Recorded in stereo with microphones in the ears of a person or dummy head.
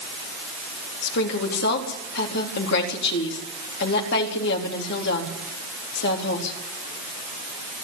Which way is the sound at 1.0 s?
65° left (ahead or behind).